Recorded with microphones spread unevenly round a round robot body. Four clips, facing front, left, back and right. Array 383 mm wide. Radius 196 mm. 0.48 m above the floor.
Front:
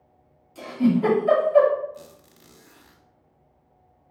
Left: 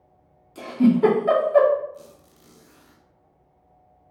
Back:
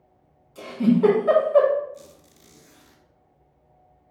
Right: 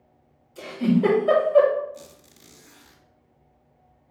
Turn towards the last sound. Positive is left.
turn(degrees=-40)